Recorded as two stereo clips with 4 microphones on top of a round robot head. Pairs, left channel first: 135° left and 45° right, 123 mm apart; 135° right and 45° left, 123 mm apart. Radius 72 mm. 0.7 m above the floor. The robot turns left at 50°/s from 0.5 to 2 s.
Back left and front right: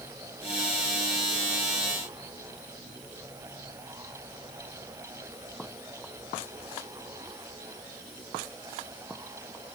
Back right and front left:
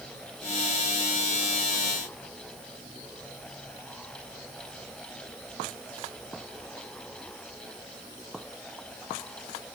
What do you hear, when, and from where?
Only background noise.